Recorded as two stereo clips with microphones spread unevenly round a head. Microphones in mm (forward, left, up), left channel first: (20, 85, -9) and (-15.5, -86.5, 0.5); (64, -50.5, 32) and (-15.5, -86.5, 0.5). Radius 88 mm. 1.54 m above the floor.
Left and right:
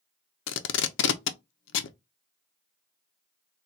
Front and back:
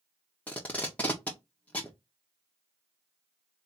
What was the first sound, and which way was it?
Tape being pulled, 100° left.